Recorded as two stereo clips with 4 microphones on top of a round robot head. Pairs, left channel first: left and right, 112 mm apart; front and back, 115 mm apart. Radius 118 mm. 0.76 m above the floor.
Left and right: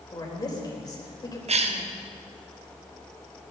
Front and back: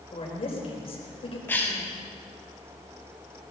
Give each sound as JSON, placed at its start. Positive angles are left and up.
{"t": 0.1, "sound": "a woman speaking", "azimuth_deg": 35, "distance_m": 4.0}
{"t": 1.5, "sound": "a cough", "azimuth_deg": -75, "distance_m": 1.6}